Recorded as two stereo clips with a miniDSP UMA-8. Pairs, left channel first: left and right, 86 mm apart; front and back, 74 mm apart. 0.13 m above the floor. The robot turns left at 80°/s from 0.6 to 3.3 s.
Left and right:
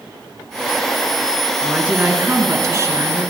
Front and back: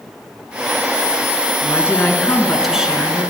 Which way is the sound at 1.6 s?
5° right.